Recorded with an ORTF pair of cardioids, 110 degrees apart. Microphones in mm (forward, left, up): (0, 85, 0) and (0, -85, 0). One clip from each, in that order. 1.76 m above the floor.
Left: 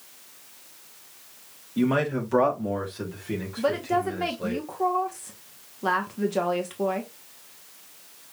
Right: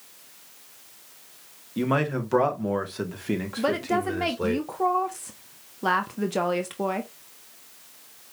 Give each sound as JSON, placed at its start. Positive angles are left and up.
{"t": 1.8, "sound": "a man speaking", "azimuth_deg": -15, "distance_m": 1.9}
{"t": 3.6, "sound": "a woman speaking", "azimuth_deg": -20, "distance_m": 0.9}